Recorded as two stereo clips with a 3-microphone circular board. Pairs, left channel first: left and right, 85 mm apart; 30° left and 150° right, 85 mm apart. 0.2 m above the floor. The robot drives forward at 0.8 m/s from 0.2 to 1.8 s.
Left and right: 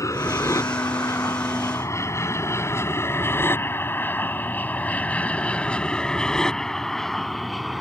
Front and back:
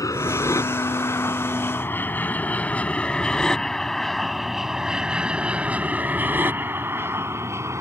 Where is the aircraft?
55° left; by 7.8 s straight behind.